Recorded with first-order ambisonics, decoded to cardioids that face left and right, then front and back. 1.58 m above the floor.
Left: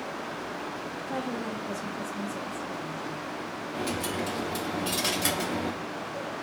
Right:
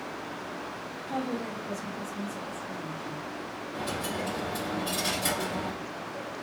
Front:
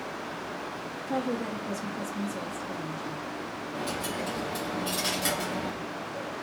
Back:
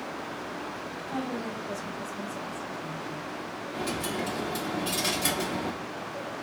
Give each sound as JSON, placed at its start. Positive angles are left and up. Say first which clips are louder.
{"t": 1.1, "sound": "a woman speaking", "louder": "right 1 dB, front 4 dB", "azimuth_deg": 20, "distance_m": 1.1}
{"t": 3.7, "sound": "a dropped coin", "louder": "left 1 dB, back 1 dB", "azimuth_deg": 105, "distance_m": 1.1}